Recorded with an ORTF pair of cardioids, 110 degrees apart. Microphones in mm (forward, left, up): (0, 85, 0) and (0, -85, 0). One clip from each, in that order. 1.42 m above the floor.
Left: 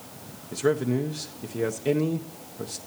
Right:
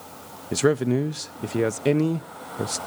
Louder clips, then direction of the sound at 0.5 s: Right 3 dB; 45° right.